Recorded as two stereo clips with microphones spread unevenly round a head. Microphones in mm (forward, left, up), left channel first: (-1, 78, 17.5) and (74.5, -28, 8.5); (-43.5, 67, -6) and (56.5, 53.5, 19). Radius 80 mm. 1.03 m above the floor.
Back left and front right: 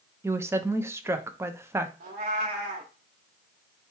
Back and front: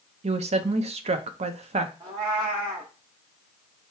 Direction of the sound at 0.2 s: 10° left.